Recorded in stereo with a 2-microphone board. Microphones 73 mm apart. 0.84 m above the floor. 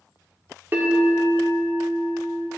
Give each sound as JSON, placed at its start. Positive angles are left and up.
{"t": 0.7, "sound": "a bell", "side_deg": -30, "distance_m": 2.0}